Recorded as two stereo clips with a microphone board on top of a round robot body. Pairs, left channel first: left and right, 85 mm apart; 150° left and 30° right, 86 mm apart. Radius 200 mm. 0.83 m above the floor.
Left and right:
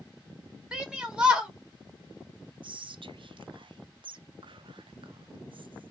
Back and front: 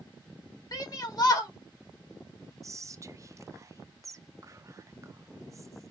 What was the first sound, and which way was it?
A shout, 170° right.